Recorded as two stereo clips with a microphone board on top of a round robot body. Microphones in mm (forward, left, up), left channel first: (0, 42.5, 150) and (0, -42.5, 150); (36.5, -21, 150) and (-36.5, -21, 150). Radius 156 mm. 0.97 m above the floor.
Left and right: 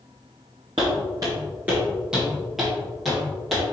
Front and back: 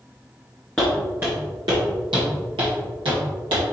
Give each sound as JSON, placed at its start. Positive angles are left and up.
{"t": 0.8, "sound": "footsteps", "azimuth_deg": -70, "distance_m": 0.9}